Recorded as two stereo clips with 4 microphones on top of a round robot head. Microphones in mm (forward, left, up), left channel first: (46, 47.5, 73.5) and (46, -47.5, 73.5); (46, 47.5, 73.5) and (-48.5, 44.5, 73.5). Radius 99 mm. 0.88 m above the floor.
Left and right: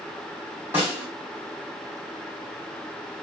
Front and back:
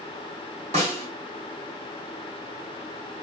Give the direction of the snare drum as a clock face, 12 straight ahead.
5 o'clock.